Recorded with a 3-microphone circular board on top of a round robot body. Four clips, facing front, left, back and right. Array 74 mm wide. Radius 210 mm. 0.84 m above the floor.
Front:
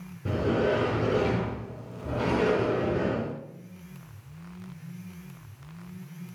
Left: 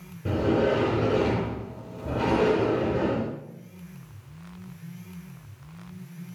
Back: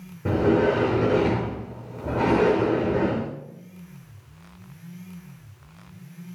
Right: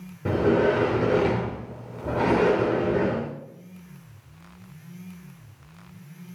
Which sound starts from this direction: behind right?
A sliding door, at 0.2 s.